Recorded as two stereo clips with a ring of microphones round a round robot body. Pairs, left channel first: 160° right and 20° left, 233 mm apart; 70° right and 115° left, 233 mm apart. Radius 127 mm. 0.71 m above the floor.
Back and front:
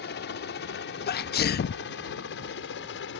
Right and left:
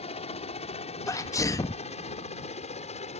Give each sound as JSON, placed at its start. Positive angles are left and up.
{"t": 0.0, "sound": "a helicopter", "azimuth_deg": -125}
{"t": 1.1, "sound": "a sneeze", "azimuth_deg": -140}